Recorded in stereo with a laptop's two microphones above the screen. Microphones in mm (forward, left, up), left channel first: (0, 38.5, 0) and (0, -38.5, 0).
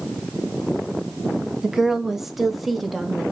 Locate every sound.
1.6 s a woman speaking: 5° right (ahead or behind), 1.4 m; by 3.3 s 5° left (ahead or behind), 2 m